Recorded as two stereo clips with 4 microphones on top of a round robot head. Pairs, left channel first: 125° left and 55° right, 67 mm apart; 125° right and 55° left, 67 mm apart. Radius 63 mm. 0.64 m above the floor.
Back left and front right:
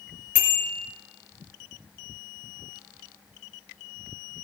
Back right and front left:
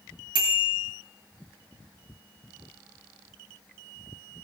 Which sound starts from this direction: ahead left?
A bicycle bell, at 0.3 s.